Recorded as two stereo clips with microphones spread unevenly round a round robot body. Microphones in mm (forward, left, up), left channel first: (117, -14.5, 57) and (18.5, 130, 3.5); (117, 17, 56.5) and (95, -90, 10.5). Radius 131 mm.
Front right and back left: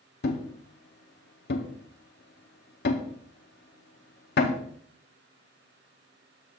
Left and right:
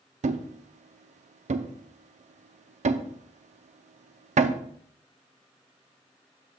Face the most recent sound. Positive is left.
turn(degrees=-80)